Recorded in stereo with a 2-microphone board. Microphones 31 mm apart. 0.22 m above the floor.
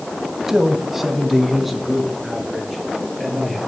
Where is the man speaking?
15° right (ahead or behind), 1.4 m; by 3.6 s 5° left (ahead or behind), 5.5 m.